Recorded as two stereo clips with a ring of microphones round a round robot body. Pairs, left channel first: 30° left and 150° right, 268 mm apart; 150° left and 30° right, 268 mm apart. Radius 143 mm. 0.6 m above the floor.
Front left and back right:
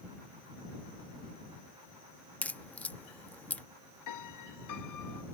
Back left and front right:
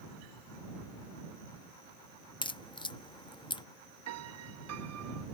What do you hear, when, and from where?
2.4 s a crack: 105° left
4.1 s a piano: 10° left